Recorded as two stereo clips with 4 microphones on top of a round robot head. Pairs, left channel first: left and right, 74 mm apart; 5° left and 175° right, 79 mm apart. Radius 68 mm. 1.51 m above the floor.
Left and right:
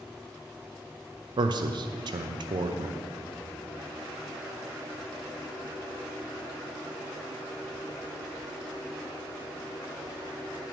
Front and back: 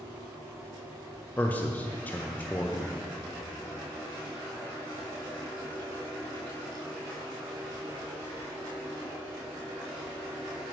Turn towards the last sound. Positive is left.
turn(degrees=-70)